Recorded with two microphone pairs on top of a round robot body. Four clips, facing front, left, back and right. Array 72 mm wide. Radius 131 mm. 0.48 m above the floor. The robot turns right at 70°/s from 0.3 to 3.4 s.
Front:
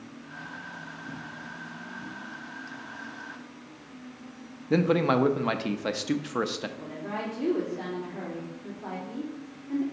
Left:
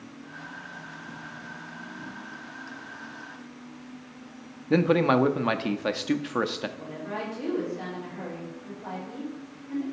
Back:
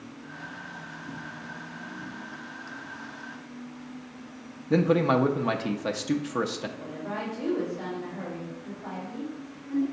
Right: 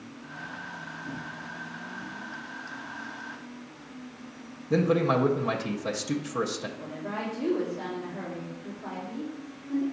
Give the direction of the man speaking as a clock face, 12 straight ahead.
10 o'clock.